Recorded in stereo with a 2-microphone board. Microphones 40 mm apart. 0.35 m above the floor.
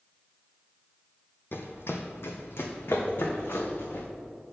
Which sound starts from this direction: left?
Running footsteps, at 1.5 s.